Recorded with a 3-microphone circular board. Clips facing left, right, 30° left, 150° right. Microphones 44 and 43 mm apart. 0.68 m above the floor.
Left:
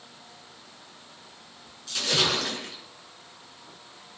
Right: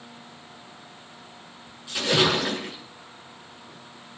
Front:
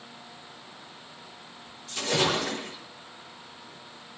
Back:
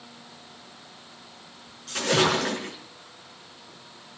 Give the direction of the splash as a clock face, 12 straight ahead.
5 o'clock.